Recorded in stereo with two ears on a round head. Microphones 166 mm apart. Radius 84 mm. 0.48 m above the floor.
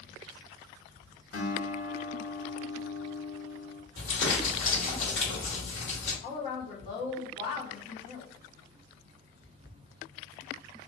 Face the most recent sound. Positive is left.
turn(degrees=30)  # may be behind; listen again after turning